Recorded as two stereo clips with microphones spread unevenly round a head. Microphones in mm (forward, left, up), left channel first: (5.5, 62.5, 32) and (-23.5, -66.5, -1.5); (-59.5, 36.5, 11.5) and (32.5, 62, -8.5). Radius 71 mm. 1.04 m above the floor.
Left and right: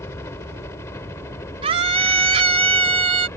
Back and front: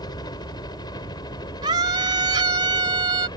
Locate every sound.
0.0 s a helicopter: 150° left
1.6 s a scream: 50° right